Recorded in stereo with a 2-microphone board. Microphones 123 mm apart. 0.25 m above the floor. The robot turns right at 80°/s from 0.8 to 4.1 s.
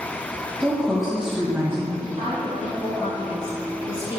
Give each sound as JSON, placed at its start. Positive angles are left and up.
{"t": 0.6, "sound": "a woman speaking", "side_deg": 5, "distance_m": 1.3}
{"t": 2.0, "sound": "a woman speaking", "azimuth_deg": -60, "distance_m": 1.7}